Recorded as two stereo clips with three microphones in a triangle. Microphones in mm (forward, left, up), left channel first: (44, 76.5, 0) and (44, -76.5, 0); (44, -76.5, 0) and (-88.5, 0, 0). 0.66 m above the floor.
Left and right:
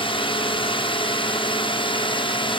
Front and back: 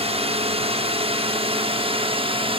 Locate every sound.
0.0 s a drone: 125° left